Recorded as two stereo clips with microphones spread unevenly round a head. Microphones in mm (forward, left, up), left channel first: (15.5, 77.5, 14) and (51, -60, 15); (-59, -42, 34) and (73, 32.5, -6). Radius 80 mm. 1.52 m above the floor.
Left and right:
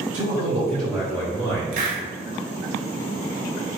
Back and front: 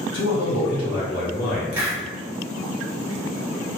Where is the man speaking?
155° right, 1.4 m; by 1.6 s 170° left, 1.4 m.